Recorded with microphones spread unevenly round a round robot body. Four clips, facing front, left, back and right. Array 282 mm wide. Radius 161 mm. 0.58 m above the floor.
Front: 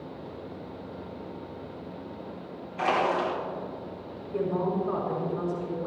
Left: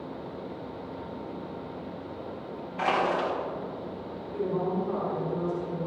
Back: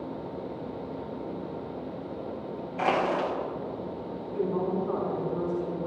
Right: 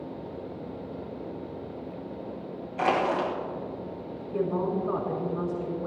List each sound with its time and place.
2.8 s crushing: 120° right, 3.5 m
4.3 s a woman speaking: 65° right, 7.5 m